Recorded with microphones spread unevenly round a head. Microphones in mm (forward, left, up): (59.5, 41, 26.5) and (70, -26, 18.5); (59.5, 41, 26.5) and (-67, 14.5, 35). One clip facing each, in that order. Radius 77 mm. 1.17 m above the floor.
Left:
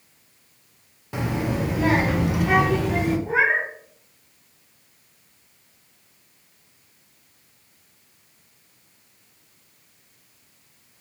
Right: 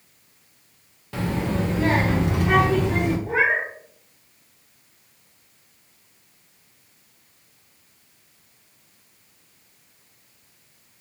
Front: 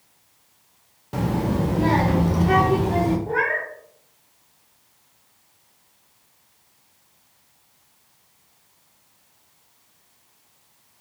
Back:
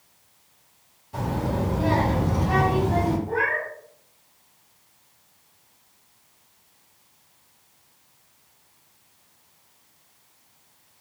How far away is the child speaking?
About 0.9 m.